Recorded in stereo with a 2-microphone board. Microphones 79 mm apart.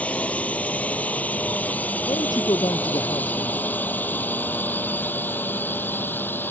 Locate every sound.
0.0 s a drone: 15° left (ahead or behind); by 6.5 s 25° left (ahead or behind)
2.1 s a man speaking: 60° left (ahead or behind)